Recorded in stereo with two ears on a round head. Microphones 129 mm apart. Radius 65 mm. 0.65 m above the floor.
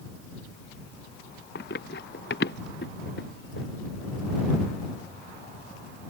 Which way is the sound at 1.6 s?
75° left (ahead or behind).